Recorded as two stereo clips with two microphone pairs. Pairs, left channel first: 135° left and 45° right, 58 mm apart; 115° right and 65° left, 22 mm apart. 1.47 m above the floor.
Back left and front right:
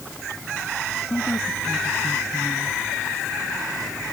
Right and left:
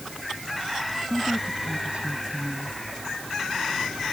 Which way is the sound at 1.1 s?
90° left.